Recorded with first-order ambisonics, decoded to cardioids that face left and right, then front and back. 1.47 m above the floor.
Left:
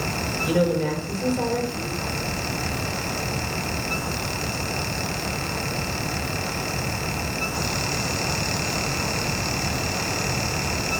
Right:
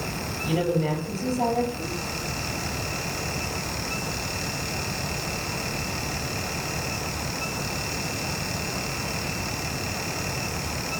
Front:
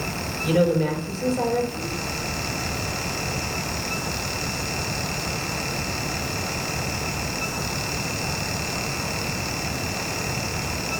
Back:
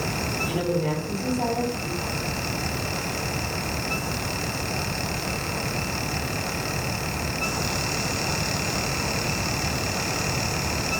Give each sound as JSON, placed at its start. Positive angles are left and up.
{"t": 0.4, "sound": "a woman speaking", "azimuth_deg": 50, "distance_m": 6.5}